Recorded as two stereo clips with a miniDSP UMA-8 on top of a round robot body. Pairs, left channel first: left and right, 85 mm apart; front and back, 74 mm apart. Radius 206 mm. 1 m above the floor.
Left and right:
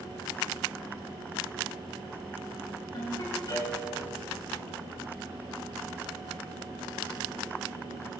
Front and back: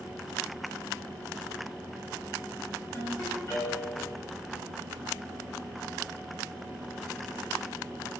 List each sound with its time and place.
2.9 s a ringtone: 55° left, 7.5 m